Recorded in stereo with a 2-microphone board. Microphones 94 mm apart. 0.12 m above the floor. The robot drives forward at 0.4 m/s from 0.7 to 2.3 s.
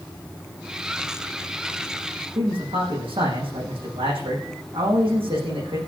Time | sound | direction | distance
2.4 | a man speaking | 75° right (ahead or behind) | 7.5 m